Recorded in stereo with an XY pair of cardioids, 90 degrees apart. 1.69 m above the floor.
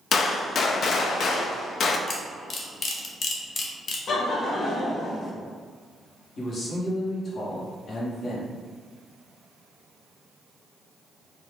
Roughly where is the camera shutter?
Ahead left.